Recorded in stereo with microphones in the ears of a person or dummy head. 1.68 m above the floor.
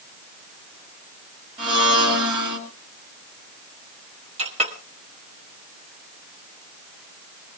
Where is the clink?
30° right (ahead or behind), 1.4 m.